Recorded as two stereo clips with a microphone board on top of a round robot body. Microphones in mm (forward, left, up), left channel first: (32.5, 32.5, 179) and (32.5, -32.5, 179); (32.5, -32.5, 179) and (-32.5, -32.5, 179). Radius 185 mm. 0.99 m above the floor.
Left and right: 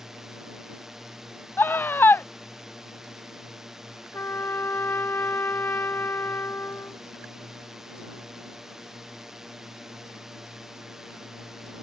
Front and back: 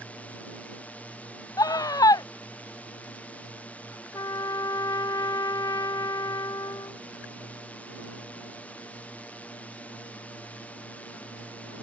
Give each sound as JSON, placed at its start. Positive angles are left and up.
{"t": 0.0, "sound": "a drone", "azimuth_deg": -15}
{"t": 1.6, "sound": "a scream", "azimuth_deg": 30}
{"t": 4.1, "sound": "a trumpet", "azimuth_deg": 30}